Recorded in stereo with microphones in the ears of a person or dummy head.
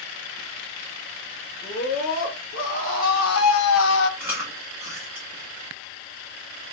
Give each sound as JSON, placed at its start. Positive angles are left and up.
{"t": 1.6, "sound": "a scream", "side_deg": 50, "distance_m": 1.5}
{"t": 4.2, "sound": "chewing", "side_deg": -10, "distance_m": 1.3}